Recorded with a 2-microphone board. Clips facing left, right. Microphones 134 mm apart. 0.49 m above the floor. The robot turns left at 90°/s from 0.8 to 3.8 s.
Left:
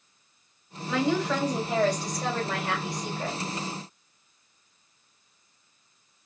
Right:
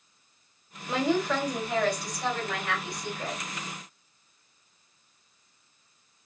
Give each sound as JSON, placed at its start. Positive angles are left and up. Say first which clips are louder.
{"t": 0.9, "sound": "a woman speaking", "louder": "even", "azimuth_deg": -140, "distance_m": 1.7}